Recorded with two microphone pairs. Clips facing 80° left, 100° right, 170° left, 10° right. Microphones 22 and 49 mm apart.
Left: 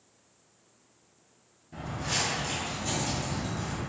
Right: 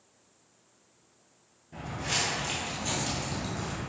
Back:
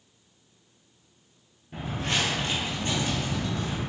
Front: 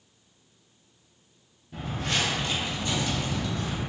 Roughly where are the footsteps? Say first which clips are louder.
Even, back 1 dB; behind.